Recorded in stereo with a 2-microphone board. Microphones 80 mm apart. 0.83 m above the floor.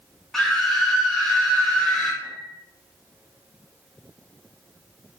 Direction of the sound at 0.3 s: 5° left (ahead or behind).